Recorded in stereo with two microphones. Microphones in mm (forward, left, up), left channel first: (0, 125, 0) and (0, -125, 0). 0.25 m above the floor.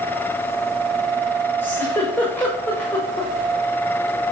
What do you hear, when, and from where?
1.6 s a giggle: 10° left (ahead or behind), 7 m